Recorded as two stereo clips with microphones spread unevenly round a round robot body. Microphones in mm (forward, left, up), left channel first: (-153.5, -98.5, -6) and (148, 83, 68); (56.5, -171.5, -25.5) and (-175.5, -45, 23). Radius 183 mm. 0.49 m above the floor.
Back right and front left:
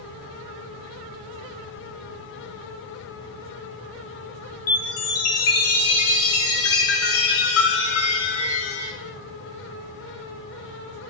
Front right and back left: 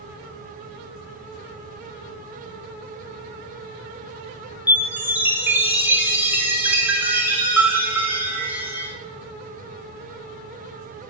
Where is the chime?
120° right, 0.7 m.